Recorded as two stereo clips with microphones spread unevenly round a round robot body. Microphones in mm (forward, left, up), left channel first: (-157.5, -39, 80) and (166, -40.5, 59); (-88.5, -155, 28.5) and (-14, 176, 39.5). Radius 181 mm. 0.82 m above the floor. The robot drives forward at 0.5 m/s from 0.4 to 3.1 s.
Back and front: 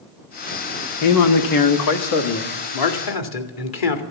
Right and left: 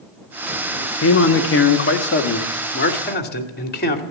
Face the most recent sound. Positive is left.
turn(degrees=-165)